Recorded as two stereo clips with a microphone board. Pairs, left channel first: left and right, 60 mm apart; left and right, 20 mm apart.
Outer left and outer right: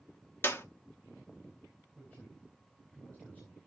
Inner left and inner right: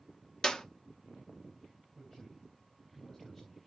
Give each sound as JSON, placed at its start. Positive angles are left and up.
{"t": 0.4, "sound": "a clap", "side_deg": 35, "distance_m": 0.9}
{"t": 1.9, "sound": "a man speaking", "side_deg": 25, "distance_m": 3.5}